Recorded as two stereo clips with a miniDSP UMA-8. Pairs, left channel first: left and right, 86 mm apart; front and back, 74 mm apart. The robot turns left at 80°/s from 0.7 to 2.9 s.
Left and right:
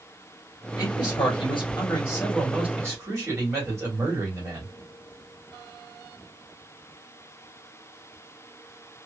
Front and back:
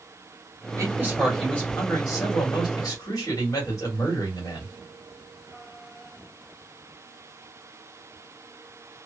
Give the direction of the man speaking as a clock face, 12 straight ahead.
8 o'clock.